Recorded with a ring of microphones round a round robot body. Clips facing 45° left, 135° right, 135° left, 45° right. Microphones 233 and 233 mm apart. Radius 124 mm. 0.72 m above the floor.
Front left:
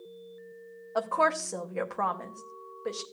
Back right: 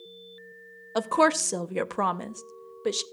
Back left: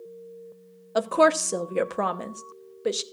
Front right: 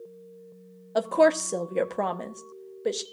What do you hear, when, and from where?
0.9 s a woman speaking: 145° right, 0.6 m